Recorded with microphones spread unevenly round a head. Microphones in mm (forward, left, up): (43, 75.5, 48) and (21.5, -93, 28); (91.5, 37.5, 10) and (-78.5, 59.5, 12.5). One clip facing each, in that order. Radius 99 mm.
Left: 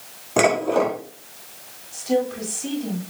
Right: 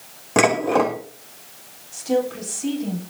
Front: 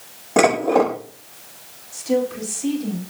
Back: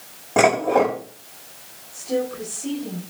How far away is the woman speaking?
About 10 m.